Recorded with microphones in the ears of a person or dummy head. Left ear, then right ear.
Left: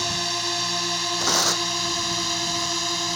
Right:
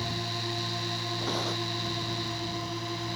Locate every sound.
0.0 s a drone: 60° left (ahead or behind); by 3.2 s 65° left (ahead or behind)
1.2 s tearing paper: 55° left (ahead or behind)